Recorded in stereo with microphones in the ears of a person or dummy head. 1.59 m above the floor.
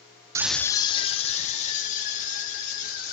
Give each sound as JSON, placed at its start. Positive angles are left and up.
{"t": 0.3, "sound": "a scream", "side_deg": -20, "distance_m": 0.6}